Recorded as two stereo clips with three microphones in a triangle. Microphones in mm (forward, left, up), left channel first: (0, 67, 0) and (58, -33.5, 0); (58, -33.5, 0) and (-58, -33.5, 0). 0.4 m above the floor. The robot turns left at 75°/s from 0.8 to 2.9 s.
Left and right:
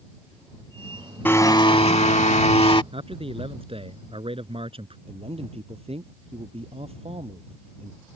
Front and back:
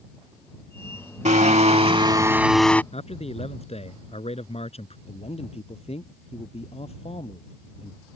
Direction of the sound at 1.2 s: 170° right.